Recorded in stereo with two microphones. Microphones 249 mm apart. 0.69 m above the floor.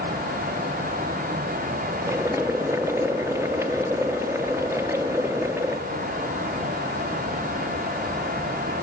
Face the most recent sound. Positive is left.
turn(degrees=-10)  # may be behind; listen again after turning